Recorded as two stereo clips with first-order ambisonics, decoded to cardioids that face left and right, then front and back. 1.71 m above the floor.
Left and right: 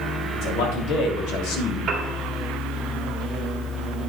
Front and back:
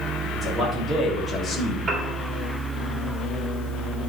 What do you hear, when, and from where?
0.3 s a man speaking: 75° left, 3.5 m; by 1.8 s 65° left, 1.6 m
1.9 s a piano: 120° right, 1.5 m